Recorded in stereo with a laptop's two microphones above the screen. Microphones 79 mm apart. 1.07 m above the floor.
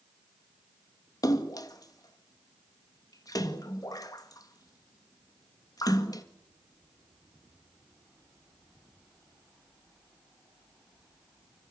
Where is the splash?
50° left (ahead or behind), 1.7 m.